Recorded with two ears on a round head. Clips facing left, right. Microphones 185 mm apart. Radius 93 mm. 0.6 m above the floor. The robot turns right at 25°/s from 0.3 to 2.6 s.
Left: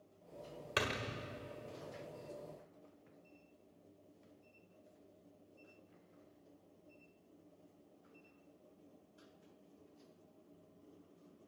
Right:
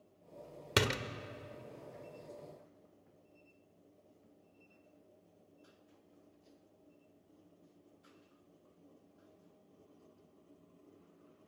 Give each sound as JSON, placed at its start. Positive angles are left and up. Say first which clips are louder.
{"t": 0.8, "sound": "a door slam", "louder": "right 6 dB", "side_deg": -55, "distance_m": 1.3}